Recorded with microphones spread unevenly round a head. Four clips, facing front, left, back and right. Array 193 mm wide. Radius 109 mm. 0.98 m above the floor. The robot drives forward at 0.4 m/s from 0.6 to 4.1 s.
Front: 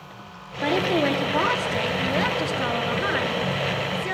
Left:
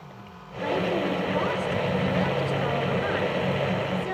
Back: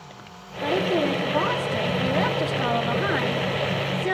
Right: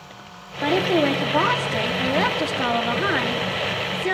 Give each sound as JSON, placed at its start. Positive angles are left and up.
{"t": 0.6, "sound": "a woman speaking", "azimuth_deg": -65, "distance_m": 2.0}